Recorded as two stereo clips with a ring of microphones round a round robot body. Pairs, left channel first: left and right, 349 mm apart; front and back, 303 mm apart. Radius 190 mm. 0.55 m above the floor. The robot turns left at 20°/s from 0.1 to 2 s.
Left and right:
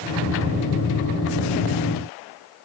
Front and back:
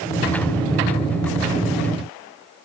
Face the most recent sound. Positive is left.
No sound to turn to.